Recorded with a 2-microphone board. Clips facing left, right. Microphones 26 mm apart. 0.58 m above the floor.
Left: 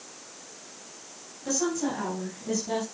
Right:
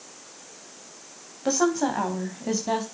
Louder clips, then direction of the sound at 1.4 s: Right 5 dB; 55° right (ahead or behind).